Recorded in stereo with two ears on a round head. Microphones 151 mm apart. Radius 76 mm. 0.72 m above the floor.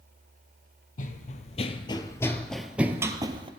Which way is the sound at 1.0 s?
50° left (ahead or behind).